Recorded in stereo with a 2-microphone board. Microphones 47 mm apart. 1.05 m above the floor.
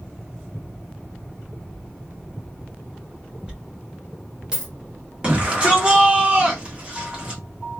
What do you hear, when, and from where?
3.5 s a dropped coin: 15° right (ahead or behind), 1.4 m
5.2 s a shout: 25° right (ahead or behind), 1.3 m